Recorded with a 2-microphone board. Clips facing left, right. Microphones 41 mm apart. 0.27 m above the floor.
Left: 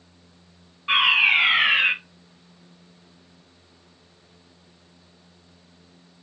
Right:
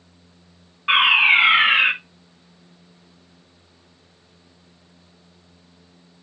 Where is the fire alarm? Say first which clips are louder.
Right 3 dB; 35° right (ahead or behind), 4.5 m.